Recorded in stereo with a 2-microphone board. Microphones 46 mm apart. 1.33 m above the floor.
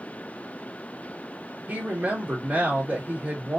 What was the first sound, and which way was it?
A woman speaking, 30° right (ahead or behind).